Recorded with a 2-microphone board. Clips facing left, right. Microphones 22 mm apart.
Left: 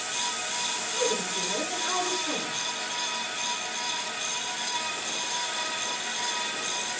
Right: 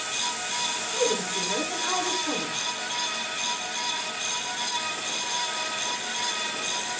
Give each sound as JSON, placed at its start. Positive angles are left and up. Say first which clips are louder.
{"t": 0.9, "sound": "a woman speaking", "louder": "right 2 dB", "side_deg": -30, "distance_m": 9.5}